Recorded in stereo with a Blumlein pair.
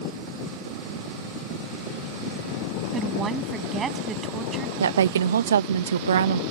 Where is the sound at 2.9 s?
25° right.